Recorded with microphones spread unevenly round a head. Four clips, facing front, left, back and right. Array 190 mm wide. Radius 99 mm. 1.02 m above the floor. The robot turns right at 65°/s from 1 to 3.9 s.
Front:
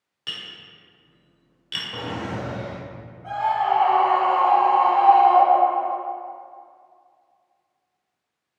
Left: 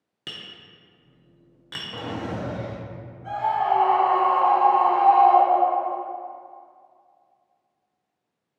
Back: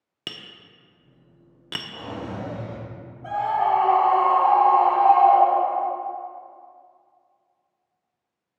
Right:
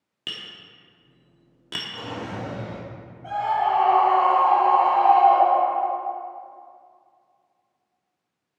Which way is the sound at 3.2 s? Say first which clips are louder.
Even, even; 175° left.